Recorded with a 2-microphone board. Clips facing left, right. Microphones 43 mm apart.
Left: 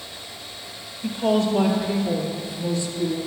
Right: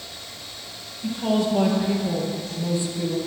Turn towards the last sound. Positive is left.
turn(degrees=-30)  # may be behind; listen again after turning